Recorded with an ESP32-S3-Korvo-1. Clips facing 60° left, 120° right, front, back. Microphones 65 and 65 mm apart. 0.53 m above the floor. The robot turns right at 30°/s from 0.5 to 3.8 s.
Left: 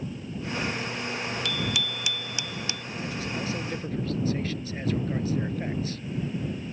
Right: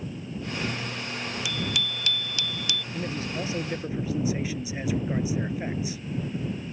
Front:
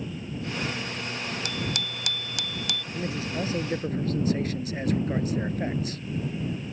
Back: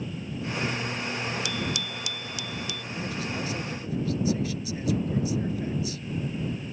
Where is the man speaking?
65° right; by 6.0 s 40° right.